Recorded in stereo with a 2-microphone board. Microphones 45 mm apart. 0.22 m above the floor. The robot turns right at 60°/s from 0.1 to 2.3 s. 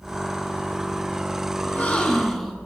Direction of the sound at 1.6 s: 135° left.